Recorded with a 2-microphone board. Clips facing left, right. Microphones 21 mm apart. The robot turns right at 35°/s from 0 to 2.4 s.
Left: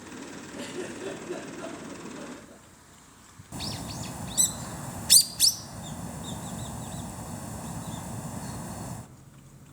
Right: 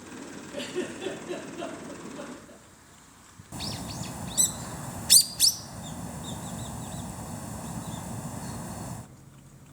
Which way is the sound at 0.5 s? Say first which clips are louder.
Right 4 dB; 75° right (ahead or behind).